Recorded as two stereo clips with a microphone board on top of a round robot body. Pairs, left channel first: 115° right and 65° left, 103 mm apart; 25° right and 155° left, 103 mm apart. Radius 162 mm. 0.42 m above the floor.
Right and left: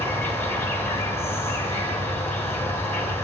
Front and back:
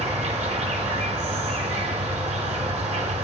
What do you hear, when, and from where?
0.0 s an insect: straight behind, 0.8 m